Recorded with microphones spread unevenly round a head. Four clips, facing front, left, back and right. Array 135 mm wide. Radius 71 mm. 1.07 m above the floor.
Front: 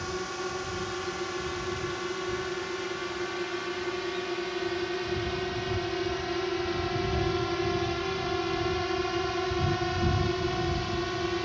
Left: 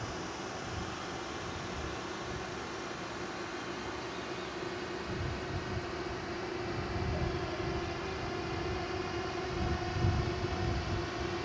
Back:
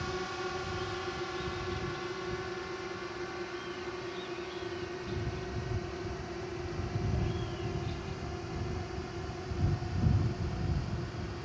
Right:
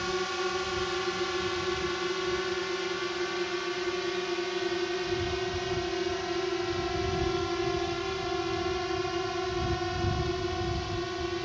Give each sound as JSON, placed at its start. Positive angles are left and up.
{"t": 0.0, "sound": "a drone", "azimuth_deg": -75}